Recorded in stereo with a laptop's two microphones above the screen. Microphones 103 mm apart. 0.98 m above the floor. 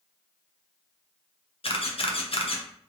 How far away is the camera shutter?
About 0.5 m.